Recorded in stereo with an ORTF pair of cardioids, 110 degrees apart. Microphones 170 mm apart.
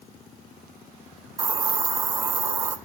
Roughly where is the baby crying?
No baby crying in this recording.